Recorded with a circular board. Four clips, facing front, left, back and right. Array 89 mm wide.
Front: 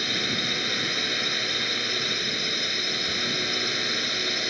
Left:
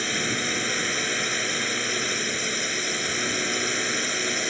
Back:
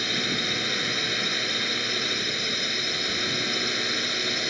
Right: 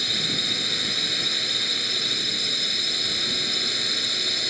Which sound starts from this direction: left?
A drone, at 0.0 s.